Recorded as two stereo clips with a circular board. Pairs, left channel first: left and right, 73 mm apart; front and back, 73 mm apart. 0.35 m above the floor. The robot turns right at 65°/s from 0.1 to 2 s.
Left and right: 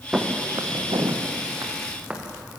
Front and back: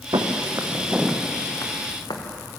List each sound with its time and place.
0.1 s footsteps: 165° right, 3 m; by 2.2 s 15° right, 4.5 m